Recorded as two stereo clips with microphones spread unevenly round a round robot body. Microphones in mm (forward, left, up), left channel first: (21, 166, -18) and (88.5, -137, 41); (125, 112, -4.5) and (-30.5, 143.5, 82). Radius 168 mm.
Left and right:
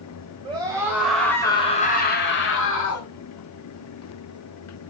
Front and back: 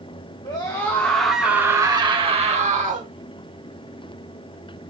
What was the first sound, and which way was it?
A scream, straight ahead.